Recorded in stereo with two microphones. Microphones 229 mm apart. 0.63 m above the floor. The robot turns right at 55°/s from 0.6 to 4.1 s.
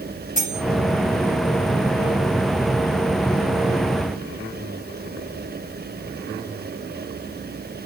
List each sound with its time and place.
0.4 s cutlery clinking: 55° left (ahead or behind), 1.5 m